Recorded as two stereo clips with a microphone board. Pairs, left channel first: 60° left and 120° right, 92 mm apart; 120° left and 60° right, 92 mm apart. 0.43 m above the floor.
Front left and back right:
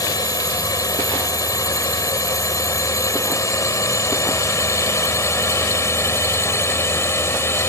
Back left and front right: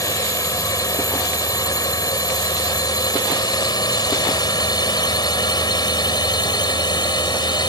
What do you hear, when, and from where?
0.0 s a drone: 90° left; by 7.7 s 115° left